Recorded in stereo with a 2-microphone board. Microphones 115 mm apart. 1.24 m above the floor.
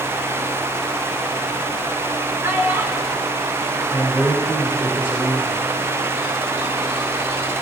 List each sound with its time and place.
2.4 s a child speaking: 20° right (ahead or behind), 1.2 m
3.9 s a man speaking: 15° right (ahead or behind), 1.8 m